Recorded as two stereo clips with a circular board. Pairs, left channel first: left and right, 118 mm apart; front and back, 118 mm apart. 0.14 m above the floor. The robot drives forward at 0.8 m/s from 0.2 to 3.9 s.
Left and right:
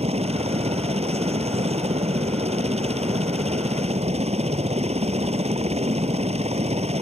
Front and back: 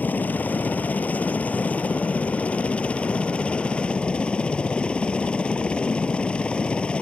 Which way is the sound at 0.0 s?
75° right.